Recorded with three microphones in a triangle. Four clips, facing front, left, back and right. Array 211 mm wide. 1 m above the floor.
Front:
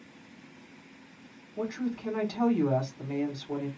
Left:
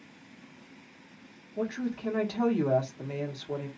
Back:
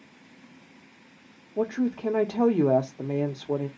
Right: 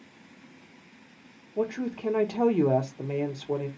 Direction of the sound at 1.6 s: 155° right.